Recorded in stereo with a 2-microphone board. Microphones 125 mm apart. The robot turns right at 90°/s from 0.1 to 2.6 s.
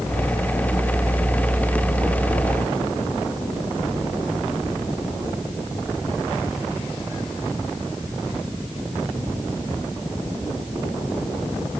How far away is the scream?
No scream in this recording.